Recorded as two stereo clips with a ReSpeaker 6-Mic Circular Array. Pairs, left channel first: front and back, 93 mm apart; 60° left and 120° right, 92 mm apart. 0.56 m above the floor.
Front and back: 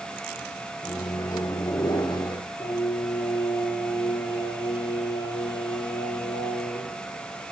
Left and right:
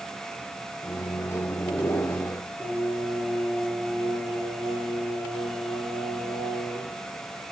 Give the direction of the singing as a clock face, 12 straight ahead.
1 o'clock.